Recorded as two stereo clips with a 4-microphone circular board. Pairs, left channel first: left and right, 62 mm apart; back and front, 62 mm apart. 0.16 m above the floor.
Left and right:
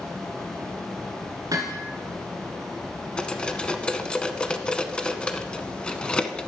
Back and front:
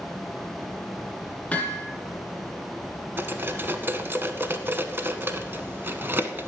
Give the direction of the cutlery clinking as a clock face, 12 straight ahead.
11 o'clock.